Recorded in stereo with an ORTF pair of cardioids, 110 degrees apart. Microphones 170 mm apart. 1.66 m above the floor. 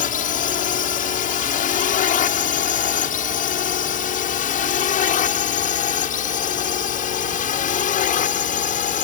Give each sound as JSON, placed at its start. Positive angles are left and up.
{"t": 0.0, "sound": "a drone", "azimuth_deg": 55}